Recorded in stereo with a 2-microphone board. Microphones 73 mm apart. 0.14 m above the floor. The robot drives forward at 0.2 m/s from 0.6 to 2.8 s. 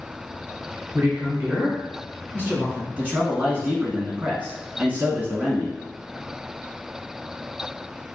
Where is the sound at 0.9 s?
25° right (ahead or behind), 1.2 m.